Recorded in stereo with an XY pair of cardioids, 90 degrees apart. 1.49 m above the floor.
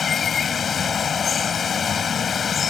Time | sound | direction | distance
0.0 | running water | 50° left | ?